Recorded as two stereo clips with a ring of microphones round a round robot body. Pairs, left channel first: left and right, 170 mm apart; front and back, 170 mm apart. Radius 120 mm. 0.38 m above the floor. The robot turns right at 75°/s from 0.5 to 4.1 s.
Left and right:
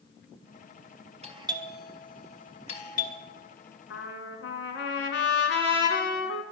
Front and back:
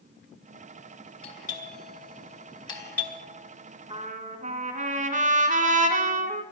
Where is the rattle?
I don't hear a rattle.